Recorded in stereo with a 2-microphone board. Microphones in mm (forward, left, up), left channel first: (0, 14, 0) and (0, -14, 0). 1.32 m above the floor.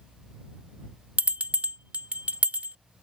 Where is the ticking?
No ticking in this recording.